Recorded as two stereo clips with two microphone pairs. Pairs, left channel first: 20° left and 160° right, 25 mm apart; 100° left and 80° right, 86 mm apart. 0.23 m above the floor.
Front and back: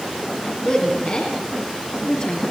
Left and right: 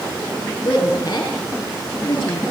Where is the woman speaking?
55° left, 4 m.